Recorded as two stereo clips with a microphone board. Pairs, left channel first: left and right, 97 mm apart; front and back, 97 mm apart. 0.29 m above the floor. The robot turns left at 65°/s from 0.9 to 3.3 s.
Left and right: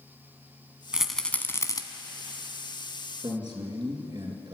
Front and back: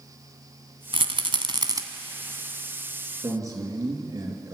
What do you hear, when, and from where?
0.9 s a rattle: 170° right, 1.2 m; by 1.8 s 130° left, 1.2 m
3.2 s a man speaking: 125° right, 4 m; by 4.5 s 130° right, 4 m